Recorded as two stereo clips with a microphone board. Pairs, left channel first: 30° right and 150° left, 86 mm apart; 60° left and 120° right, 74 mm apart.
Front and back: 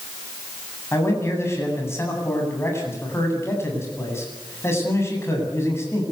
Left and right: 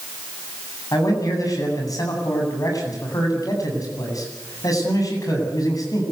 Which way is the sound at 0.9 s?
30° left.